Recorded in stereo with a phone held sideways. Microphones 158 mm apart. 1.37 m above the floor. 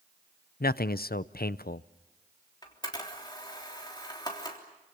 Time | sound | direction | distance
0.6 | a man speaking | 75° left (ahead or behind) | 0.6 m
2.6 | a camera shutter | 25° left (ahead or behind) | 3.5 m